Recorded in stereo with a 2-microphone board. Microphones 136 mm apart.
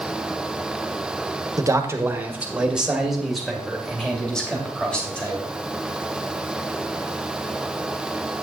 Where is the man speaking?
25° right (ahead or behind), 1.2 m; by 5.4 s 10° left (ahead or behind), 3.5 m.